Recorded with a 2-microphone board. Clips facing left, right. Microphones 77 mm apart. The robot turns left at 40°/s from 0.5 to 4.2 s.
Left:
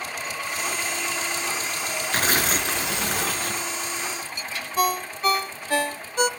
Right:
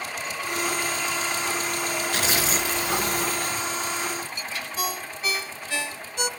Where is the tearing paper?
140° left, 1.8 m; by 3.7 s 75° left, 1.8 m.